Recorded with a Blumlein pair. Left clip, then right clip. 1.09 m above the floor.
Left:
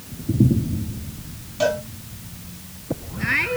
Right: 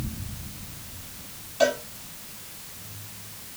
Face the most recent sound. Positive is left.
turn(degrees=10)